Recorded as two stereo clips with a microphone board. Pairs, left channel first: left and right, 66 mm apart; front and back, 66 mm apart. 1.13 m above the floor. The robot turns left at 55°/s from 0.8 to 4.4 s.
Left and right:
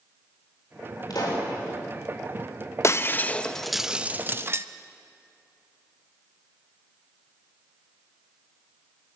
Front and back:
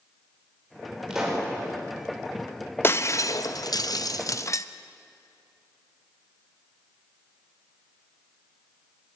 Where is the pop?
100° left, 5 m; by 1.5 s 75° left, 5 m.